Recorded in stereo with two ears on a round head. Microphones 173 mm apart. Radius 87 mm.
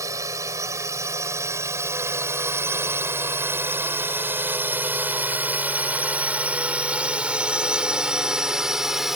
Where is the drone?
15° right (ahead or behind); by 9.2 s centre (ahead or behind).